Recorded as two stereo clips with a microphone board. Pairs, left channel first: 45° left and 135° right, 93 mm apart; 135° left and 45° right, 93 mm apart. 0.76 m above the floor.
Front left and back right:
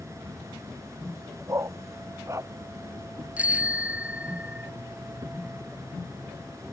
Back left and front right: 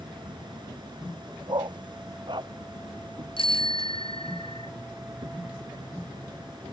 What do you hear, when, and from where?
0.0 s an insect: 80° right
1.5 s a dog barking: 75° right
3.4 s a bicycle bell: 150° left